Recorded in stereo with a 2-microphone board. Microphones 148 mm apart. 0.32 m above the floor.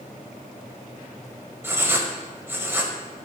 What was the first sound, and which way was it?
Writing, 15° right (ahead or behind).